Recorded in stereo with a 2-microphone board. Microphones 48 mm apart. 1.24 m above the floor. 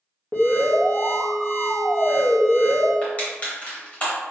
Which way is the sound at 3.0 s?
30° left (ahead or behind).